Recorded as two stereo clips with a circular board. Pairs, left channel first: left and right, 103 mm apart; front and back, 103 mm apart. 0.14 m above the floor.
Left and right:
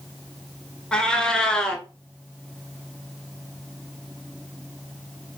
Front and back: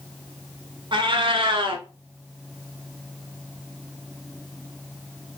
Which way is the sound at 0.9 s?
170° left.